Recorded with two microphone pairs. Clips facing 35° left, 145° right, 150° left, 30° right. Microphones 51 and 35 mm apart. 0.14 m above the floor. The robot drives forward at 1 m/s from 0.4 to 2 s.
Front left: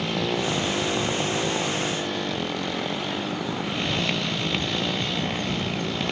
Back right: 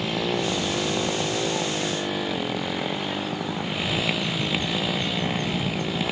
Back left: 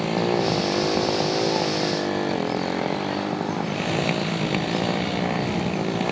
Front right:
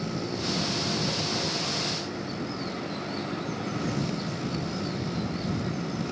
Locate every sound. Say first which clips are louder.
0.0 s a motorcycle: even, back left 10 dB; 125° left